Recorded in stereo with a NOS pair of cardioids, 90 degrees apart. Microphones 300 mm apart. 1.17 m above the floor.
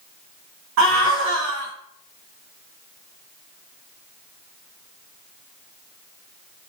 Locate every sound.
0.8 s a scream: 70° right, 1.3 m